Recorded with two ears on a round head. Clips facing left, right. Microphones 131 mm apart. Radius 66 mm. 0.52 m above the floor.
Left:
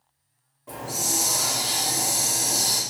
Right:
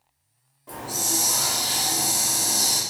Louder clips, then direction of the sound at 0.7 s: Even; centre (ahead or behind).